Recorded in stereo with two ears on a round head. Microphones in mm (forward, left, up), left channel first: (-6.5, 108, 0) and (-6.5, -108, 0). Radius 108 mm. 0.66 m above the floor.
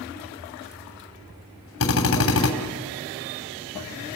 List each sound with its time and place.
1.8 s a drill: 60° left (ahead or behind), 3 m